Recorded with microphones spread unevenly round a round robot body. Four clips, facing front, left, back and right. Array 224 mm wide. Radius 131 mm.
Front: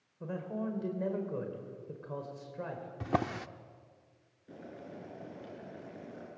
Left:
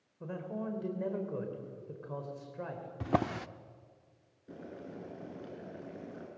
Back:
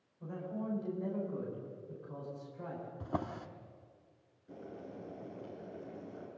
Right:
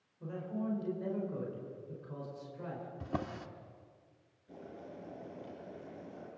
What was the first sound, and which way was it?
A man speaking, 20° left.